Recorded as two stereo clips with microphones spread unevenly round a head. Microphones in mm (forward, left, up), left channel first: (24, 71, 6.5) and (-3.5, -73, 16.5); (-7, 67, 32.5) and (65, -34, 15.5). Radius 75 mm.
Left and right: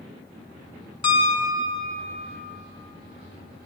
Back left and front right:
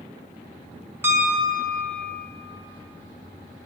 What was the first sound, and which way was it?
A piano, 20° left.